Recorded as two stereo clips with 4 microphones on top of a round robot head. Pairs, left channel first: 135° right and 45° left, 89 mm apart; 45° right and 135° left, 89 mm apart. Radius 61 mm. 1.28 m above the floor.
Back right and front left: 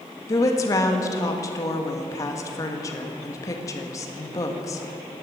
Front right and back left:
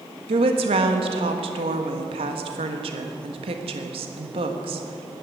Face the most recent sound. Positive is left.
turn(degrees=165)